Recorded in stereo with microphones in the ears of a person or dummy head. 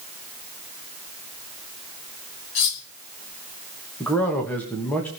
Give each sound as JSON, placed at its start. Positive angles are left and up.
{"t": 2.5, "sound": "cutlery clinking", "side_deg": 55, "distance_m": 2.0}
{"t": 4.0, "sound": "a man speaking", "side_deg": 10, "distance_m": 3.0}